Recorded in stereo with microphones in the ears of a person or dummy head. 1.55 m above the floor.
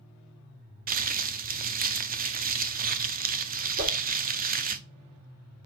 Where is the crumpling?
45° right (ahead or behind), 0.5 m.